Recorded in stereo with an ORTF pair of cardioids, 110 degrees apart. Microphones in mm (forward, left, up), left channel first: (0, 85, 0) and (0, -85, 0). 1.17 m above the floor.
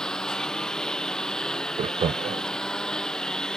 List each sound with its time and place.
0.0 s a lawn mower: 5° left
1.8 s laughter: 35° right